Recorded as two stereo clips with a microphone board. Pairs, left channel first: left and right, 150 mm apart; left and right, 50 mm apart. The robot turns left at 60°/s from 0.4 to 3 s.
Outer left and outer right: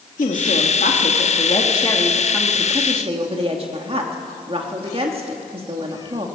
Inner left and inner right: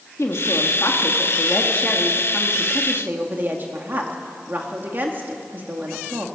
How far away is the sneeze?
No sneeze in this recording.